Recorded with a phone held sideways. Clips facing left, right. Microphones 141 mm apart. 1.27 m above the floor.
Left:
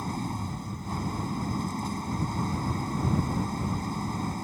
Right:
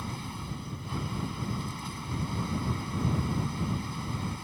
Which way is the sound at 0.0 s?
40° left (ahead or behind).